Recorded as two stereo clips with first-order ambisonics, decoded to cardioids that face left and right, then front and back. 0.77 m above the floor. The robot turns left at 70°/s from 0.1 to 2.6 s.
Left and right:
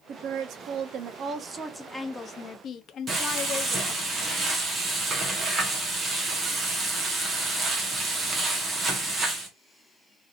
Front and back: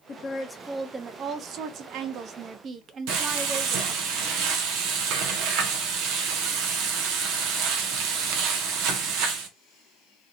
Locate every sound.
0.1 s a woman speaking: 50° right, 0.5 m; by 4.1 s 135° left, 0.5 m
3.1 s frying: 160° right, 0.9 m